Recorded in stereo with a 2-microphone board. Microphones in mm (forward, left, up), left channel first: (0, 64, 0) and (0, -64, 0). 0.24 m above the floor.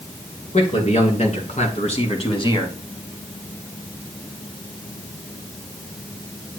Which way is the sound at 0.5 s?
70° left (ahead or behind).